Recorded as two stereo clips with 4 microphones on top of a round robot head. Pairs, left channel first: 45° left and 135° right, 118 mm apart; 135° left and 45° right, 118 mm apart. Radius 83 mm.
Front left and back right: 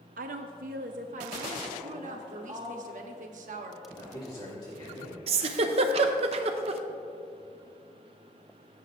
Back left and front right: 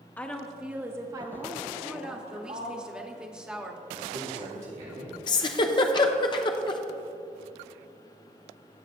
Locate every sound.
0.2 s a woman speaking: 150° right, 0.7 m; by 2.8 s 80° right, 1.6 m
1.8 s a woman speaking: 130° right, 1.0 m
3.9 s a man speaking: 15° right, 2.5 m
5.3 s a giggle: 175° right, 0.5 m